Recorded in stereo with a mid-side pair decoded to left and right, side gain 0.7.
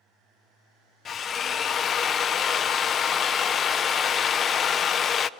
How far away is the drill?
About 0.5 m.